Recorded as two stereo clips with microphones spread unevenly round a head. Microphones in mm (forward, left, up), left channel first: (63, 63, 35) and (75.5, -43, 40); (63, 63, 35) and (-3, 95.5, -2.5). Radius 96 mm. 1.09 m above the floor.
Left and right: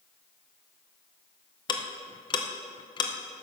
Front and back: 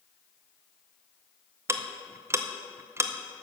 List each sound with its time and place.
1.7 s ticking: 140° left, 0.7 m